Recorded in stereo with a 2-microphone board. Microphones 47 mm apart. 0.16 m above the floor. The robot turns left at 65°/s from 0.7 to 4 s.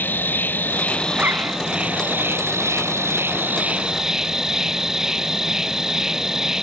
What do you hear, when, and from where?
0.0 s an insect: 45° left; by 6.6 s 170° right
1.1 s a zipper: 35° right (ahead or behind); by 1.6 s 65° right (ahead or behind)